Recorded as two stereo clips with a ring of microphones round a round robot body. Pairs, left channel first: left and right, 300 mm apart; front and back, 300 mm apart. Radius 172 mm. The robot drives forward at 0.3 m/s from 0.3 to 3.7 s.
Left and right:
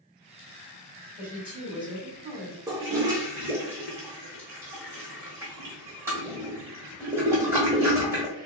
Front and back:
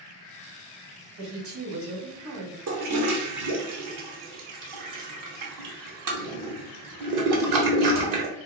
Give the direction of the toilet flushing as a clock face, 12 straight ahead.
6 o'clock.